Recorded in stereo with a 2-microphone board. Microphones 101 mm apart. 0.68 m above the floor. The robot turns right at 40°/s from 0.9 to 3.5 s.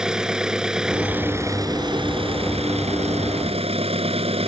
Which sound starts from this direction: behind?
An engine running, at 0.0 s.